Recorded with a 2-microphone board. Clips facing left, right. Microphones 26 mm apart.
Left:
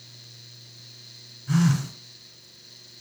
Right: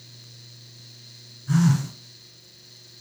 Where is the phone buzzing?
Centre (ahead or behind), 0.9 m.